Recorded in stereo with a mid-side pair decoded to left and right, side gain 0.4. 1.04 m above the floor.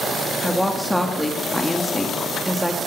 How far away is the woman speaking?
About 1.9 m.